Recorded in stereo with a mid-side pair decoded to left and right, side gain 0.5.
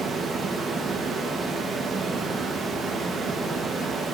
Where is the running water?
45° right, 1.1 m.